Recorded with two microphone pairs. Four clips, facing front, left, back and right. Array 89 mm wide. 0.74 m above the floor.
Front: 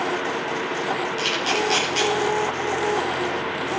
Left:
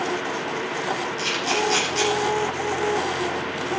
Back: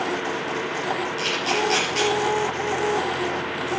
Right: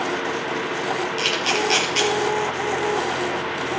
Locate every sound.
1.2 s a camera shutter: 110° right, 4 m